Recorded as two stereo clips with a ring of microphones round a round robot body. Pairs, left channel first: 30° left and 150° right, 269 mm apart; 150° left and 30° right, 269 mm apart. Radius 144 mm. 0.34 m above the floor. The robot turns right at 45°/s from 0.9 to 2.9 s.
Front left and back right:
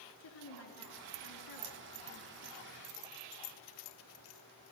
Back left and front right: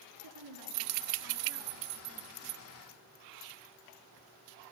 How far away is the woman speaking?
About 5 m.